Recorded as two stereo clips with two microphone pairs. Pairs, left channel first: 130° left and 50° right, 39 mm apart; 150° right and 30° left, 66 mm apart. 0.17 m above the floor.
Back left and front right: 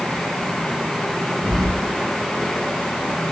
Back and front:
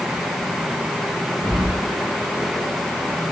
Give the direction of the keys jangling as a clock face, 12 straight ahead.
12 o'clock.